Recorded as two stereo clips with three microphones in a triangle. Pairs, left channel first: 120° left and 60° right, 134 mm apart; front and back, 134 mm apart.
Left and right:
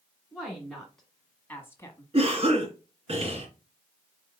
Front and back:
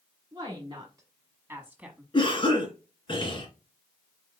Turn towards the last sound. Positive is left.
turn(degrees=-40)